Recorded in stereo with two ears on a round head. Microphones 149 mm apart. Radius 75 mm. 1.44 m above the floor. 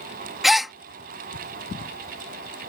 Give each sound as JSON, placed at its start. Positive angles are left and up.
{"t": 0.4, "sound": "a gasp", "side_deg": 0}